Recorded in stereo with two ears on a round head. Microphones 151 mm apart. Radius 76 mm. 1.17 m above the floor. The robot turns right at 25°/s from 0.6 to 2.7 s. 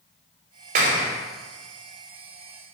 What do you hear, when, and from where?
0.8 s a clap: 50° right (ahead or behind), 2.5 m; by 1.1 s 40° right (ahead or behind), 2.5 m